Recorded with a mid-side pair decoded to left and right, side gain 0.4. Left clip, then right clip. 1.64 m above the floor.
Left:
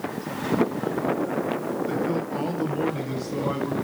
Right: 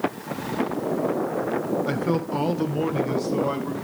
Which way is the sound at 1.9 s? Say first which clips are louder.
Right 1 dB; 65° right.